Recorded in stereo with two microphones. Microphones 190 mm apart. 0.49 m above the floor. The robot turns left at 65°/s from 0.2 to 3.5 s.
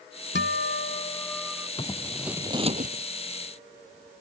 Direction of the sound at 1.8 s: 25° left.